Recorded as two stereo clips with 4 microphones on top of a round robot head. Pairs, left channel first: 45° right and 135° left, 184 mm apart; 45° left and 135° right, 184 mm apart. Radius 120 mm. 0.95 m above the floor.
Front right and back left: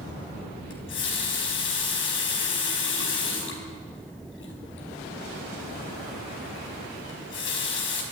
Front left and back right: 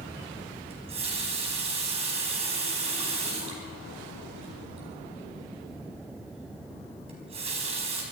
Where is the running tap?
70° right, 4.5 m.